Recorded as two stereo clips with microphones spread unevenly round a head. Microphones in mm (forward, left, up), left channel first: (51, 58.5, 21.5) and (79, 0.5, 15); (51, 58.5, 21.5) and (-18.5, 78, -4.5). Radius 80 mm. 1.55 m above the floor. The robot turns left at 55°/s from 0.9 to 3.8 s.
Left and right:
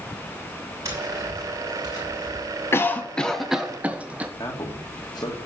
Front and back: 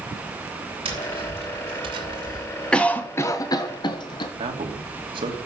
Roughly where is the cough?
Ahead left.